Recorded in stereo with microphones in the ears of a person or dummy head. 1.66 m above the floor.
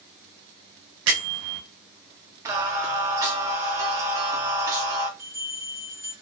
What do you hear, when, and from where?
1.1 s a bell: 70° right (ahead or behind), 0.8 m
2.5 s singing: 20° right (ahead or behind), 0.5 m
5.2 s a bell: 20° right (ahead or behind), 1.4 m